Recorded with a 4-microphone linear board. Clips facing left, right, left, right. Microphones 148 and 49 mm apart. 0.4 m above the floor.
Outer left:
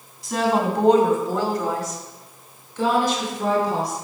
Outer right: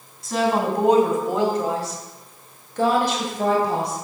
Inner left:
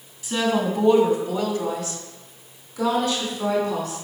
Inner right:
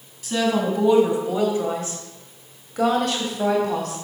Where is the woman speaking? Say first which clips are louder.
Even, inner right 1 dB; centre (ahead or behind), 2.5 m; by 4.0 s 65° right (ahead or behind), 2 m.